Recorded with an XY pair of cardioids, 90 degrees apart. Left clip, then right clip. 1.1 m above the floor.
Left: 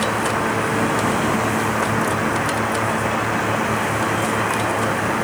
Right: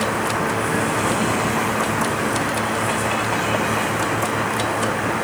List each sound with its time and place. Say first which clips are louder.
0.0 s a fan: left 1 dB; 10° left